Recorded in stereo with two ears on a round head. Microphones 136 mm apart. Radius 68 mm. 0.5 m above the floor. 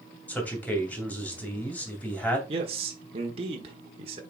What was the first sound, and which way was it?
A man speaking, 10° left (ahead or behind).